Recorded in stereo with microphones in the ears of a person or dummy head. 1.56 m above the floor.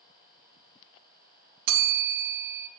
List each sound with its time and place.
1.7 s a bell: 55° right (ahead or behind), 0.8 m